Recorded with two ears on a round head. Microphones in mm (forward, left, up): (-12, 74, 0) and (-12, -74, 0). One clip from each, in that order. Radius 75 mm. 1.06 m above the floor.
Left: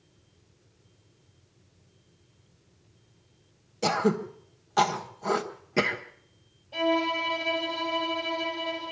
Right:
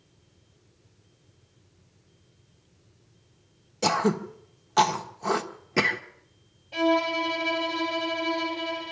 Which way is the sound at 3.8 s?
20° right (ahead or behind).